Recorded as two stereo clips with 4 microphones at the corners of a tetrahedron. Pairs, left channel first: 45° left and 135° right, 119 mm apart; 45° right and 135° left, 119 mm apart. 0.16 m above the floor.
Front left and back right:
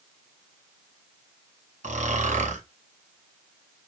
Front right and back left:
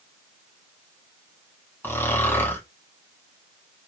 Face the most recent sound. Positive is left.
turn(degrees=-120)